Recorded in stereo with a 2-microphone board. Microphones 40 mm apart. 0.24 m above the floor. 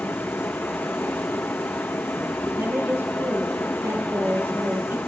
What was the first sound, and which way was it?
Running water, 80° left.